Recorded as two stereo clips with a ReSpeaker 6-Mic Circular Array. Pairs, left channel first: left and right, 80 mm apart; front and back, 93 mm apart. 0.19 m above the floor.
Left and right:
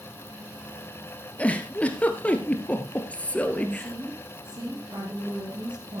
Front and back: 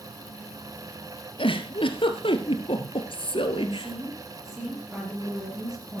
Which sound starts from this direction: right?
A woman speaking, at 3.6 s.